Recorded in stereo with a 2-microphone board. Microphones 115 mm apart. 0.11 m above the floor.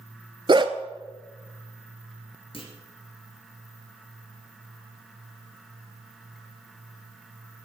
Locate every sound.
0.5 s a dog barking: 45° right (ahead or behind), 0.7 m
2.5 s a clunk: 50° left (ahead or behind), 1.9 m